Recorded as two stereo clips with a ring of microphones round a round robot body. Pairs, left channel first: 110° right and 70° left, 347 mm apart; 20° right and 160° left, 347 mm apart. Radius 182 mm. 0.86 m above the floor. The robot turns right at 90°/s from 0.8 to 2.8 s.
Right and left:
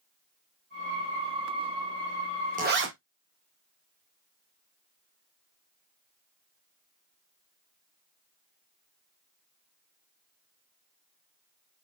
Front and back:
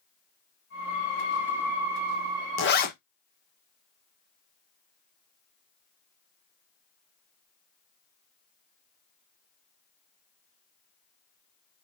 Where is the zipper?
10° left, 0.8 m; by 2.9 s 30° left, 0.8 m.